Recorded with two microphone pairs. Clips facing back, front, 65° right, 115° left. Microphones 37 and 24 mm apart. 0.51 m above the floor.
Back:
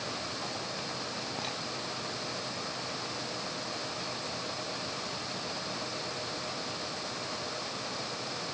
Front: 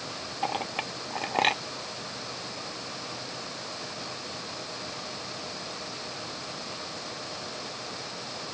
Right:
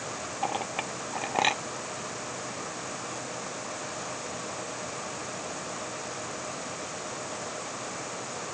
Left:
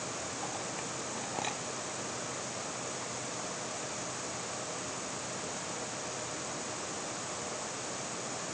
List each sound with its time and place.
0.4 s a clink: 30° right